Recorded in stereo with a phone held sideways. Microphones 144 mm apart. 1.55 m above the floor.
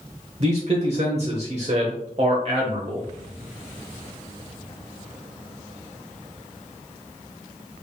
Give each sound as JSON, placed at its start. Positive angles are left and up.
{"t": 0.4, "sound": "a man speaking", "side_deg": -50, "distance_m": 0.8}